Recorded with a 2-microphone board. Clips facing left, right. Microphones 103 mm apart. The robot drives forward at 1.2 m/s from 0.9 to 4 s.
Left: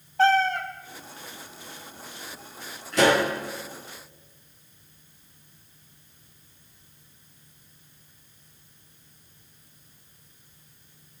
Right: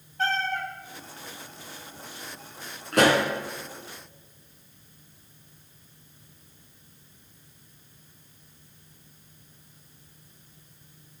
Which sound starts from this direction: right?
A pop, at 2.9 s.